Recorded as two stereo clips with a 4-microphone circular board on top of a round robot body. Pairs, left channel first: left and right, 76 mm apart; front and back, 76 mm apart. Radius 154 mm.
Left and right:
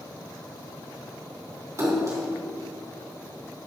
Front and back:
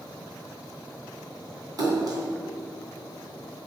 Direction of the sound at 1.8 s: 140° right.